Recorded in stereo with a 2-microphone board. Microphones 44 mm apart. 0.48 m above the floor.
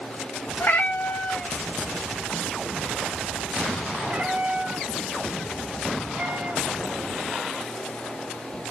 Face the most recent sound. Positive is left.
turn(degrees=-50)  # may be behind; listen again after turning